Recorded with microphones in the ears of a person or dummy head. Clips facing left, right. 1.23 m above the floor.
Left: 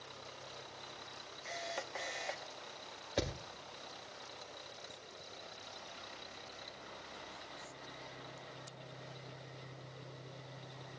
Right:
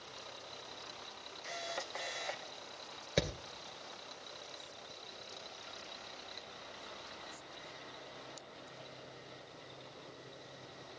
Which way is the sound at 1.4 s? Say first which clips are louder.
Even; centre (ahead or behind).